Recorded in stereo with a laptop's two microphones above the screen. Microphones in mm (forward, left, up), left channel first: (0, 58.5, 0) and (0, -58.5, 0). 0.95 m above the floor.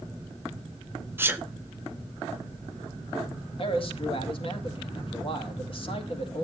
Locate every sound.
1.2 s a sneeze: 15° right (ahead or behind), 0.6 m
3.6 s a man speaking: 50° left (ahead or behind), 1.8 m